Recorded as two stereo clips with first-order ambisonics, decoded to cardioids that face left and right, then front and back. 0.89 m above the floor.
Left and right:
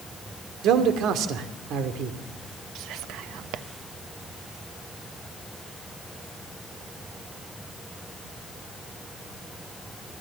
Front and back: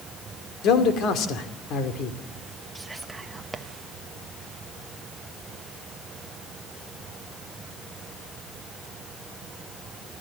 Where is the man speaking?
50° right, 2 m.